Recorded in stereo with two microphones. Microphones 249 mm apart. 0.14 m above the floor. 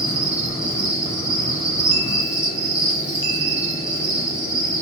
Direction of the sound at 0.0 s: 5° right (ahead or behind).